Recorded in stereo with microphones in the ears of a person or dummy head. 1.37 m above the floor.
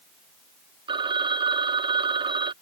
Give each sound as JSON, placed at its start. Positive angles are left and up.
{"t": 0.9, "sound": "a phone ringing", "side_deg": -25}